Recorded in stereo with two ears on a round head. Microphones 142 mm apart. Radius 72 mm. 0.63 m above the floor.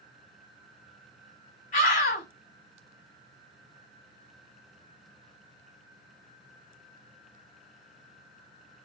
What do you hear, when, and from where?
1.7 s a scream: 45° left (ahead or behind), 4 m